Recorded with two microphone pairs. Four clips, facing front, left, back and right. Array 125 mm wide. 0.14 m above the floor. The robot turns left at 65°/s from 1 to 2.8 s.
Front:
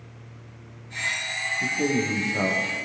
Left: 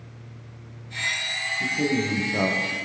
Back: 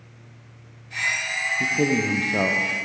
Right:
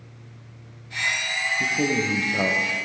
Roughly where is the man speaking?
Behind right.